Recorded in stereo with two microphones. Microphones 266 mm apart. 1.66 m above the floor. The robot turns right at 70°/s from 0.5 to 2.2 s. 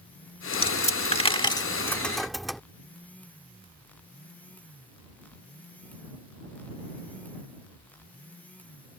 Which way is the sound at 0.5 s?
20° left (ahead or behind).